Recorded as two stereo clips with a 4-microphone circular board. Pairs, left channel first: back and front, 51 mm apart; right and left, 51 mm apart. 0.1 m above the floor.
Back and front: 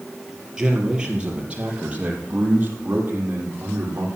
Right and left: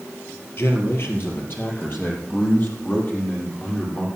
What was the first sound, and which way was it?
A man speaking, 75° right.